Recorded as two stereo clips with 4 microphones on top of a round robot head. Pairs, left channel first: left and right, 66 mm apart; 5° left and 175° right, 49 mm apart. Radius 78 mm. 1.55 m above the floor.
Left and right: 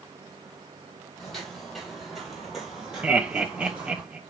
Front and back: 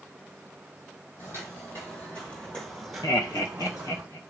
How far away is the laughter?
About 0.6 m.